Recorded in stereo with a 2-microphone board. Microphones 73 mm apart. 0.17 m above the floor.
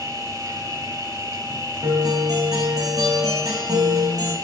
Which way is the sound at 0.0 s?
35° right (ahead or behind).